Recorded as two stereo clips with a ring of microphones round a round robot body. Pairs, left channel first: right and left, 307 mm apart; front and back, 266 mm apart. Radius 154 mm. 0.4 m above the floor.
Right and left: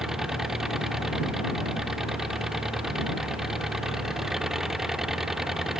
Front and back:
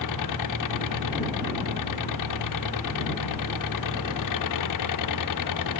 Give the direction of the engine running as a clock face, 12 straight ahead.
12 o'clock.